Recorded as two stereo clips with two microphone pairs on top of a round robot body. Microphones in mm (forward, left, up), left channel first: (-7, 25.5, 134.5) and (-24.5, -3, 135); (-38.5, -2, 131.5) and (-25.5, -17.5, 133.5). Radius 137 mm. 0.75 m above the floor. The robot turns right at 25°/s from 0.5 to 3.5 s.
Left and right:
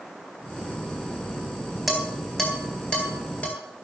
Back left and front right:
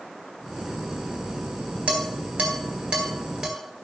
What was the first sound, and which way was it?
Dishes clattering, 35° right.